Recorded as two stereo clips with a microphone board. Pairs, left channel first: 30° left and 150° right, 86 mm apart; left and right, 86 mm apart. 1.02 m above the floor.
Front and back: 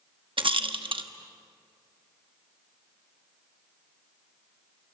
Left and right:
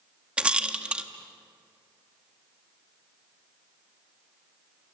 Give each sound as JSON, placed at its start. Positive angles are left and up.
{"t": 0.4, "sound": "a rattle", "azimuth_deg": -165, "distance_m": 1.2}